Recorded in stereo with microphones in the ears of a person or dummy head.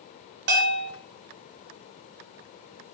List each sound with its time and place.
0.5 s a bell: 65° right (ahead or behind), 0.7 m